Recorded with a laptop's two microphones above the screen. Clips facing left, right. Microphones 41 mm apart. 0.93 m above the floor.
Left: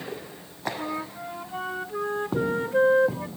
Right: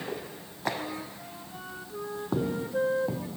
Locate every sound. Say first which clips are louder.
0.8 s a flute: left 5 dB; 50° left (ahead or behind), 0.7 m